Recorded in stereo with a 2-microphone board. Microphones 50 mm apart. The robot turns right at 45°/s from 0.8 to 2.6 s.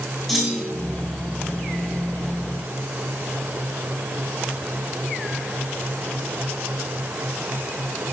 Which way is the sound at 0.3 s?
5° left (ahead or behind).